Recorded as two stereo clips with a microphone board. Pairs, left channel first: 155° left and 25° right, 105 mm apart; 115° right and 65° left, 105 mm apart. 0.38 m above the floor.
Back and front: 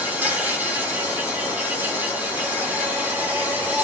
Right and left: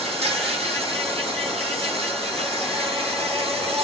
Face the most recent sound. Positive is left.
turn(degrees=50)